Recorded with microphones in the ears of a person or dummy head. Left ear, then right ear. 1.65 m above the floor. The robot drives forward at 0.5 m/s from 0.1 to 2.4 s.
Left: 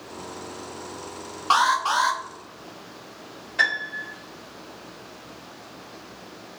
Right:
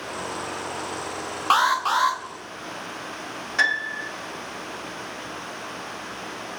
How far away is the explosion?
I don't hear an explosion.